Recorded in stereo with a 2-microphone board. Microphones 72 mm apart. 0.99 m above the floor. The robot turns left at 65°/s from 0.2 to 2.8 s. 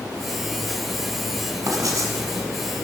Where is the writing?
85° right, 1.3 m; by 2.1 s 115° right, 1.3 m.